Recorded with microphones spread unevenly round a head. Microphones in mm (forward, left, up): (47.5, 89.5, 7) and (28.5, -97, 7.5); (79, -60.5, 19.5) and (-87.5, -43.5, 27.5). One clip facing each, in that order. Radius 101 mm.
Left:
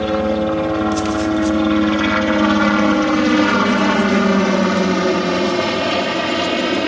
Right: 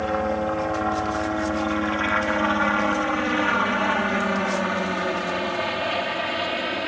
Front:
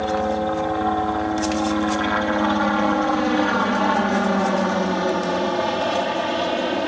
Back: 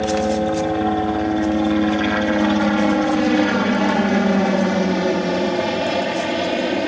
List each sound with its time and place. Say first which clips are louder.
0.0 s a helicopter: left 7 dB, back 3 dB; 110° left; by 6.9 s 100° left